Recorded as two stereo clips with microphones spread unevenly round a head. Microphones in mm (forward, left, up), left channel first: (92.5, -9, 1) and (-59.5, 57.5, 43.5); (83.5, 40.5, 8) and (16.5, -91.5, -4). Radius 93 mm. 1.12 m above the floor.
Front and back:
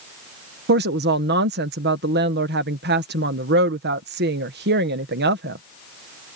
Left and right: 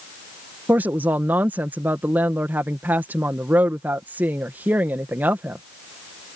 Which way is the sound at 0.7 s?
170° left.